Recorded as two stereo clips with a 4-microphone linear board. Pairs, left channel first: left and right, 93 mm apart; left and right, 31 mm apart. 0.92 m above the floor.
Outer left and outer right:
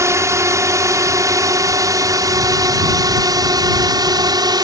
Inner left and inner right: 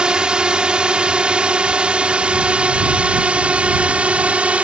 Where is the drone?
30° right (ahead or behind); by 4.6 s 45° right (ahead or behind).